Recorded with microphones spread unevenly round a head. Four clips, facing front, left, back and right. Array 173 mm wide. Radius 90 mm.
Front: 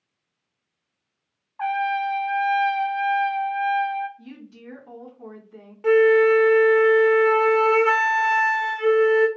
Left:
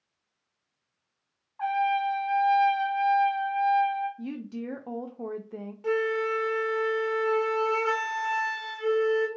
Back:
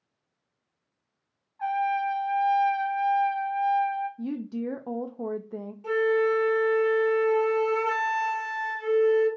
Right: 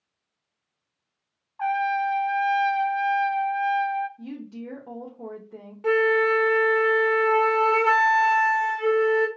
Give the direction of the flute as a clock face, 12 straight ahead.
1 o'clock.